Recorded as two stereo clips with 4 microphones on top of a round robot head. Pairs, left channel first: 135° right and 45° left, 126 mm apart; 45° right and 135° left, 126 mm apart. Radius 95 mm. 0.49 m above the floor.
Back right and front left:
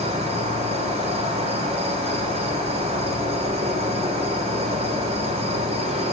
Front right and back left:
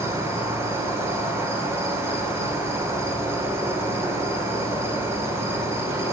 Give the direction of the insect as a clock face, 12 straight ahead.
10 o'clock.